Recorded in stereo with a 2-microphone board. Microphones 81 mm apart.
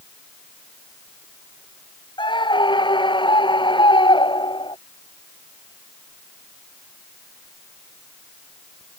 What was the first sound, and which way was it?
A scream, 80° left.